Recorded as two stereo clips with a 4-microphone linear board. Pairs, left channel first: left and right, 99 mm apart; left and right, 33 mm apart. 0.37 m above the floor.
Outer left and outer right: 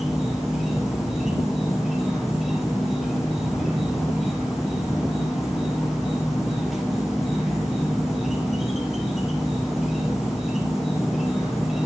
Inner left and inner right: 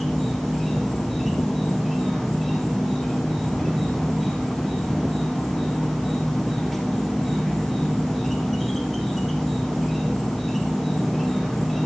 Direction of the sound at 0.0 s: Centre (ahead or behind).